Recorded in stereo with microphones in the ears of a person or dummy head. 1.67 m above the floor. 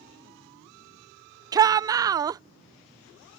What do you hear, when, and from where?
1.5 s a shout: 15° right (ahead or behind)